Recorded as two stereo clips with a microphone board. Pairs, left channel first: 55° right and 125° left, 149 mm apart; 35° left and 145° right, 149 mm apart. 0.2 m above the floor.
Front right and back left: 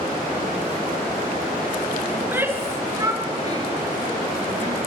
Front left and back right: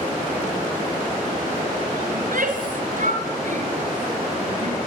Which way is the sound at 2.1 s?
155° right.